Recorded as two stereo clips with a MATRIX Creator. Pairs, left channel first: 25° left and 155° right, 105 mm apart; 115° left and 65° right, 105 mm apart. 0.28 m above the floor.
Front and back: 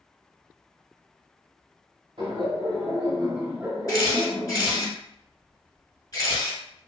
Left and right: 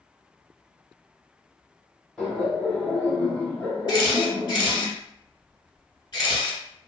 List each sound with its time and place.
2.2 s laughter: 165° right, 1.5 m; by 4.9 s 50° left, 1.1 m
3.9 s a camera shutter: 75° left, 1.2 m